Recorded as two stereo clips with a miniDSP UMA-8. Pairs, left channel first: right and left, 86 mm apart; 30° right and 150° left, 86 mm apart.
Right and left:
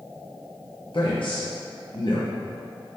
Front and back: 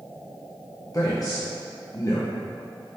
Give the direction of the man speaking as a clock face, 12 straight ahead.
3 o'clock.